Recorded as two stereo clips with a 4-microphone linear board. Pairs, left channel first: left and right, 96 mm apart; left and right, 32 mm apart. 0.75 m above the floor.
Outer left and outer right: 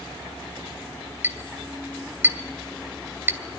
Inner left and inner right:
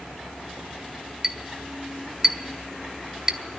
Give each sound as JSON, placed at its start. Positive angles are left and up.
{"t": 1.2, "sound": "a clink", "side_deg": -20, "distance_m": 1.5}